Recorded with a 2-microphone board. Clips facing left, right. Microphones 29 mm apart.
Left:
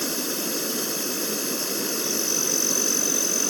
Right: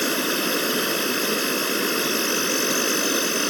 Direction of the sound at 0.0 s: 45° right (ahead or behind).